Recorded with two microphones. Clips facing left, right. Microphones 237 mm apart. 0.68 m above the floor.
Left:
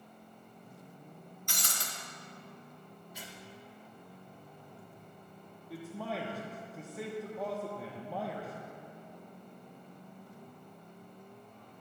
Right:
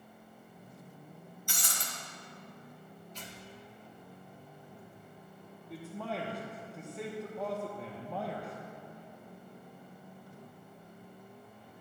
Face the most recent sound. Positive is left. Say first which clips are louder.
# even
turn(degrees=0)  # may be behind; listen again after turning